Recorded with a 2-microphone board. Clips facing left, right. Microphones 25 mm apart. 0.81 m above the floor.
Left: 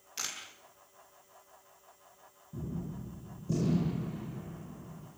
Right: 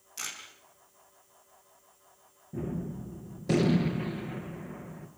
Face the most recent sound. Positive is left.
turn(degrees=-75)  # may be behind; listen again after turning